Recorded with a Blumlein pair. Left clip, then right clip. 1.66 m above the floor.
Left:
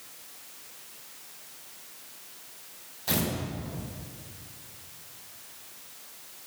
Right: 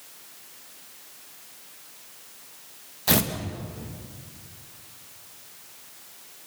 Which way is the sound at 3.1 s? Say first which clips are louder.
Right 6 dB; 70° right.